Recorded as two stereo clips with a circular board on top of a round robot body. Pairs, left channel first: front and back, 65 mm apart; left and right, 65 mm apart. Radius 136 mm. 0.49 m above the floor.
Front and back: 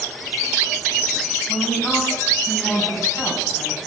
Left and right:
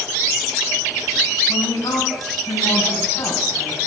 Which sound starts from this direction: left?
A woman speaking, at 1.5 s.